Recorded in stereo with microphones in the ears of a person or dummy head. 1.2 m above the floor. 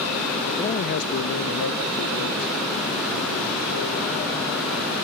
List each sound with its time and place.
0.6 s a man speaking: 15° left (ahead or behind), 0.6 m; by 5.0 s 85° left, 5.5 m